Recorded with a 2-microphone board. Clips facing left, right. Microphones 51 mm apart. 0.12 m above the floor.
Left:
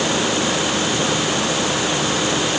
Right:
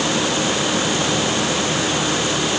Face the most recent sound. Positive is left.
No sound to turn to.